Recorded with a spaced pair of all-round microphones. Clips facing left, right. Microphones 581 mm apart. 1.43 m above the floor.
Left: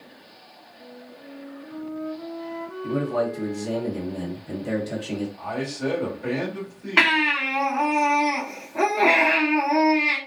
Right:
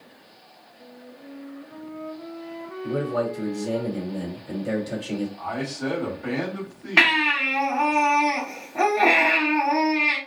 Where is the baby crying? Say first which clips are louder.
Left 1 dB; 10° right (ahead or behind), 0.9 m.